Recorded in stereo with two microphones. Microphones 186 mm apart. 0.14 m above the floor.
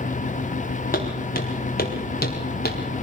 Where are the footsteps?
50° left (ahead or behind), 5 m; by 2.8 s 55° left (ahead or behind), 3.5 m.